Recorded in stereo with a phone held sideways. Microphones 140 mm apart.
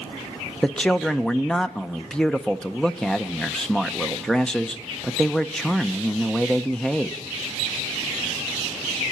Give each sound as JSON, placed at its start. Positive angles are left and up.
{"t": 0.6, "sound": "a man speaking", "side_deg": 5, "distance_m": 0.6}